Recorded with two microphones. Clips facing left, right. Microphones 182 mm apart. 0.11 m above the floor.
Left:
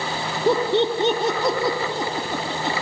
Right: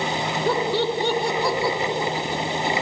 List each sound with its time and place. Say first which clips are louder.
0.5 s laughter: left 4 dB; 20° left (ahead or behind), 1.5 m